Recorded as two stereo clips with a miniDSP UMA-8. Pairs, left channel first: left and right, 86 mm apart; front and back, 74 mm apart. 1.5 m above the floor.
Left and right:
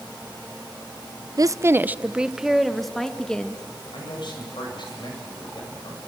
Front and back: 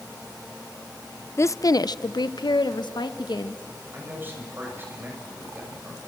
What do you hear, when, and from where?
1.4 s a woman speaking: 50° right, 0.6 m; by 3.6 s 10° left, 1.9 m
3.9 s a man speaking: 120° left, 8 m